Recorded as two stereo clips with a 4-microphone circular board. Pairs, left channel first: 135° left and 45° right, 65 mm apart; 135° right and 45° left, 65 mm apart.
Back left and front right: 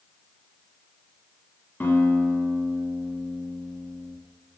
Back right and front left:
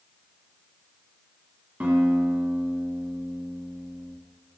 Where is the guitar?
90° left, 1.7 m.